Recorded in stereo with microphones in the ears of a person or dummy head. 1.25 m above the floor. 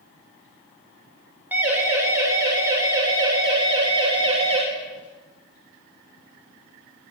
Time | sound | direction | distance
1.5 | a siren | 15° right (ahead or behind) | 6.5 m